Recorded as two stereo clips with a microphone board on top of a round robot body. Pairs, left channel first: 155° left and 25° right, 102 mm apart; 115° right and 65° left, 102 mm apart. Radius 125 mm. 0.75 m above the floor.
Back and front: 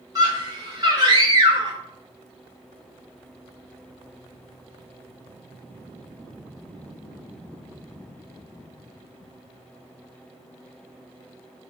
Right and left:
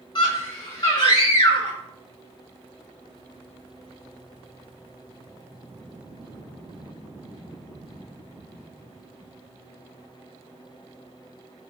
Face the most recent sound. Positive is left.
turn(degrees=-75)